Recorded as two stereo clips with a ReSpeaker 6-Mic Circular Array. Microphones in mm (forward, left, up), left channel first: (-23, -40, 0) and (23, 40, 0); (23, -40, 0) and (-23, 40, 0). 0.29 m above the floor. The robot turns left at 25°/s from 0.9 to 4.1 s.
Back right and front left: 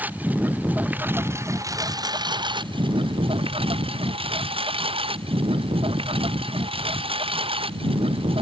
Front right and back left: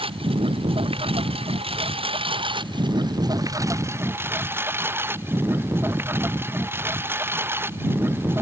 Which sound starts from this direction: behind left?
A lawn mower, at 0.0 s.